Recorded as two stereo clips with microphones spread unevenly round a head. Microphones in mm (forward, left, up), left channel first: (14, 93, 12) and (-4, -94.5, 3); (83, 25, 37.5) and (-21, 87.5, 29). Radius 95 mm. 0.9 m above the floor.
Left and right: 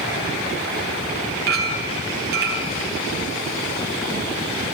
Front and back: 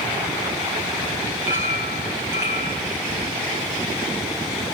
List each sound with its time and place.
1.5 s a clink: 135° right, 3.5 m